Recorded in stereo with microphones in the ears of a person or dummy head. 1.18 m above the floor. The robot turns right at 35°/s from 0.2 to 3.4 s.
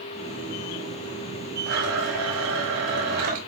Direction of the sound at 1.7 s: 110° right.